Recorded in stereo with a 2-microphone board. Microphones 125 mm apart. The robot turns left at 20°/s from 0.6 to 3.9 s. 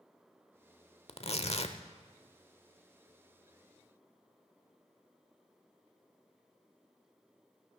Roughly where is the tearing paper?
Left.